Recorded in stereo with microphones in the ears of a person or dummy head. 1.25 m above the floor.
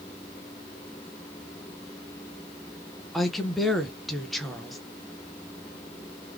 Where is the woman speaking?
Centre (ahead or behind), 0.9 m.